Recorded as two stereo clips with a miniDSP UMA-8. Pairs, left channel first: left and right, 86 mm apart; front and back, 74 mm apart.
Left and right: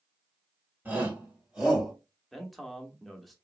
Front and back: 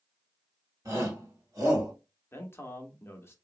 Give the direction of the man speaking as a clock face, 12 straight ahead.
12 o'clock.